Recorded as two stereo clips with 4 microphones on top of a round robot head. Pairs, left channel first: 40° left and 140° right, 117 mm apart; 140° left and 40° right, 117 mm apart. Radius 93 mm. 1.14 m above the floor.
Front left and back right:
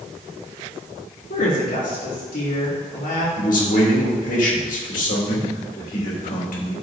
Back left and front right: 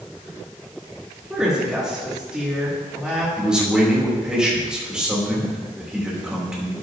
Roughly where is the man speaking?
Ahead left.